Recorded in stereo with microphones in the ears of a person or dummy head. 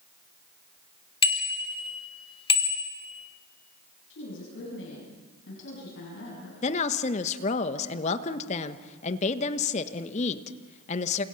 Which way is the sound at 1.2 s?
35° left (ahead or behind).